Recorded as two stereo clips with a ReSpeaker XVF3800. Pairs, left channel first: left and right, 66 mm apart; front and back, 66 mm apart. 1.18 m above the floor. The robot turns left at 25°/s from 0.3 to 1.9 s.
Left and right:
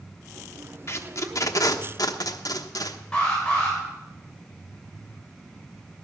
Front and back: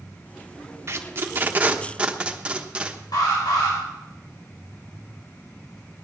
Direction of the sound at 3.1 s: 15° left.